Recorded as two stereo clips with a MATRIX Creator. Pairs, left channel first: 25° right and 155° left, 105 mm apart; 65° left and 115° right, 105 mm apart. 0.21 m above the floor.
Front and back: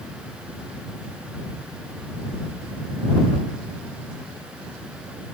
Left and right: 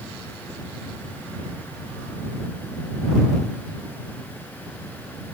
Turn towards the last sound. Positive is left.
No sound to turn to.